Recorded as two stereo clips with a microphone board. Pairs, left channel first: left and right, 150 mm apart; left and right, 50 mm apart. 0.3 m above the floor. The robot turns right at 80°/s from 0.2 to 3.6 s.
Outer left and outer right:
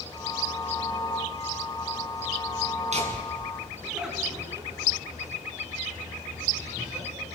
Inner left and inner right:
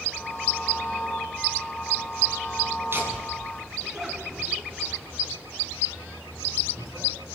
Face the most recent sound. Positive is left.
turn(degrees=-5)  # may be behind; listen again after turning